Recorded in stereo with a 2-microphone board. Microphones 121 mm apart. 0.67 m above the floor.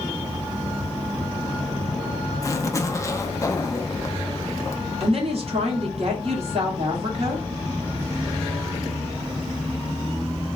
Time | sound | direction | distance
2.4 | a zipper | 25° left (ahead or behind) | 0.5 m
5.0 | a woman speaking | 55° right (ahead or behind) | 1.4 m